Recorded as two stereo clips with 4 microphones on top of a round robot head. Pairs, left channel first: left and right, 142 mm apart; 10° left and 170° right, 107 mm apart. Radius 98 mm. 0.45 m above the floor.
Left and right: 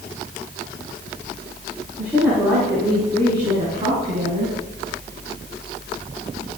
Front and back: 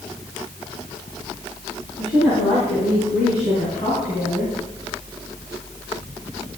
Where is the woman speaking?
10° right, 5.5 m; by 4.5 s 50° right, 5.5 m.